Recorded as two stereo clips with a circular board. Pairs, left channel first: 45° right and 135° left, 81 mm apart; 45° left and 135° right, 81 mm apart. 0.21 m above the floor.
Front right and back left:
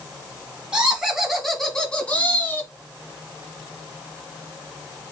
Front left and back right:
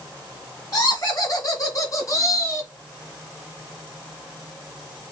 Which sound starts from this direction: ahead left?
Laughter, at 0.7 s.